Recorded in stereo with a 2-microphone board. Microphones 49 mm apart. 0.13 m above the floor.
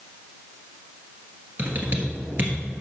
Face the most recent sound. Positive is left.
turn(degrees=-40)  # may be behind; listen again after turning